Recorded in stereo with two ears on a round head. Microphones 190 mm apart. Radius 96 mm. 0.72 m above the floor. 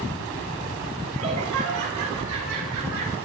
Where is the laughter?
80° right, 7.5 m.